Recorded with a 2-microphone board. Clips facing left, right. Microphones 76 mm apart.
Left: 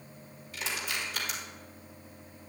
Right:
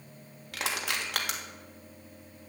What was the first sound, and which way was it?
Crushing, 75° right (ahead or behind).